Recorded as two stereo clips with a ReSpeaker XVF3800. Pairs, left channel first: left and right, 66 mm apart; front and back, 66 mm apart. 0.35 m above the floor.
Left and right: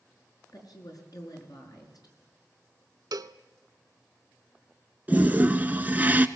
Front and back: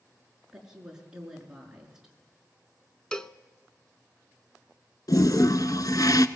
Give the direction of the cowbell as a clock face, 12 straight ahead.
3 o'clock.